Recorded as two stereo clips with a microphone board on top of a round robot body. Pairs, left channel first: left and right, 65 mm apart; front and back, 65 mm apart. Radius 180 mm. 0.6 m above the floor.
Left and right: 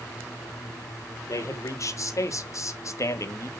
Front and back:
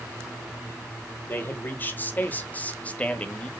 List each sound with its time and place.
1.3 s a man speaking: 60° left, 2 m; by 3.5 s 70° left, 1.2 m